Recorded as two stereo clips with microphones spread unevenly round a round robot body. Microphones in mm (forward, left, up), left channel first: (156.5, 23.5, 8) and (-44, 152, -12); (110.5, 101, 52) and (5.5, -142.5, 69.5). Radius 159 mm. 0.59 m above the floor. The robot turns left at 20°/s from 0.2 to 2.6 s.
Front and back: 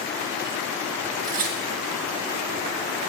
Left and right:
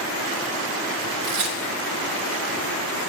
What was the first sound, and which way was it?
Tearing paper, 145° right.